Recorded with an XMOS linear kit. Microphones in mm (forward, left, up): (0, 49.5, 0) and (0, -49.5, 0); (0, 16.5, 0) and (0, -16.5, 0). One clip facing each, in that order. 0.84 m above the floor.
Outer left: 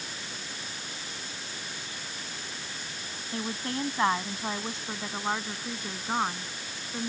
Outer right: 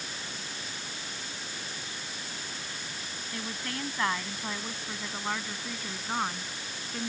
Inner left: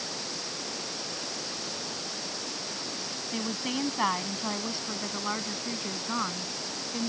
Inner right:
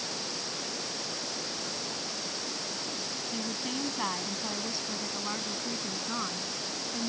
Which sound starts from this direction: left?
A woman speaking, at 3.3 s.